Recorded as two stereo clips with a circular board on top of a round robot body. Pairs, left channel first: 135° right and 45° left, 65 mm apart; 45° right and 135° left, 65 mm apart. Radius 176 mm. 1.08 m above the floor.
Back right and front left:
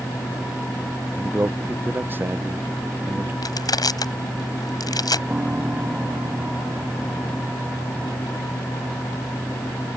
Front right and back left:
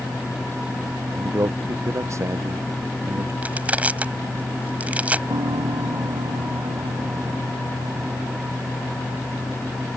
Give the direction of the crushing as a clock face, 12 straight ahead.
5 o'clock.